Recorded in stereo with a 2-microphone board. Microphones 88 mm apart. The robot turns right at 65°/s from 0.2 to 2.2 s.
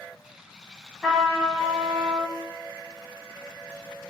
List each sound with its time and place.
1.0 s a trumpet: straight behind, 0.9 m; by 2.3 s 105° right, 0.9 m